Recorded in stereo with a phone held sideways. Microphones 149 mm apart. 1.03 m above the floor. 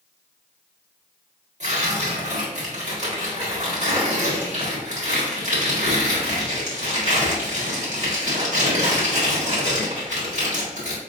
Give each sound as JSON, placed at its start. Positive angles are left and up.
{"t": 1.6, "sound": "tearing paper", "side_deg": -50, "distance_m": 1.5}